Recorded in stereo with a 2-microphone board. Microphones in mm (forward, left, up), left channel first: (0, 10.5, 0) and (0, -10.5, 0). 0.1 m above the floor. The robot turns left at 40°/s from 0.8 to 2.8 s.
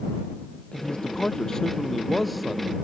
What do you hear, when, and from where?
0.7 s a man speaking: 60° left; by 2.8 s 20° right